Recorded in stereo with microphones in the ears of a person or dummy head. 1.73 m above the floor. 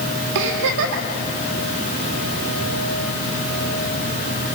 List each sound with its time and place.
0.3 s a giggle: 65° right (ahead or behind), 2.5 m